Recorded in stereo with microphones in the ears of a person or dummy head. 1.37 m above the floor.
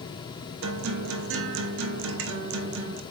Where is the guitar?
65° right (ahead or behind), 0.9 m.